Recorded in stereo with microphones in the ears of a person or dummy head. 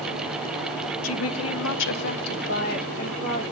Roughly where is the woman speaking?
Left.